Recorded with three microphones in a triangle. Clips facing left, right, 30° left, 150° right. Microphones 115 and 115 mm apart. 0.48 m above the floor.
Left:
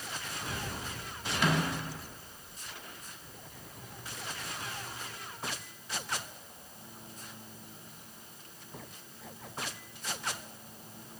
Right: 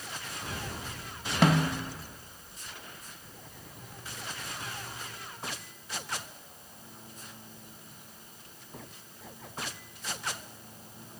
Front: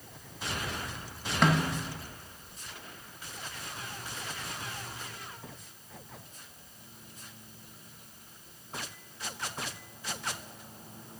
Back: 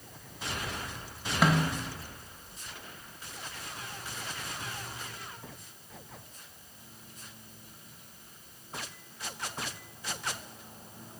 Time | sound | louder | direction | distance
1.4 | a snare drum | right 5 dB, even | 65° right | 0.9 m